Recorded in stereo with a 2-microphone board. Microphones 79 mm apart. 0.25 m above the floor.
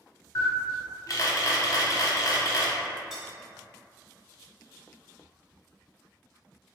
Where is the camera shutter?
45° left (ahead or behind), 0.7 m.